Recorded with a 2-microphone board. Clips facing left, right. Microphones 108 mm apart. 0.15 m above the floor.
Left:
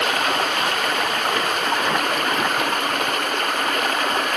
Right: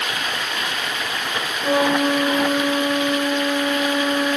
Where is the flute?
80° right.